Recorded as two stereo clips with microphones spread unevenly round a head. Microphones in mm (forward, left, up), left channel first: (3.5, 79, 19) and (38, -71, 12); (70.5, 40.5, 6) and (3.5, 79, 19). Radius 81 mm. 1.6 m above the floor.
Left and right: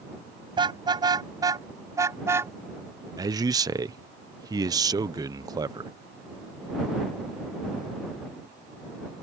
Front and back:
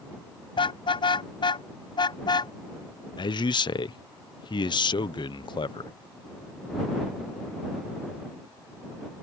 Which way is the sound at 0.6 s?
15° right.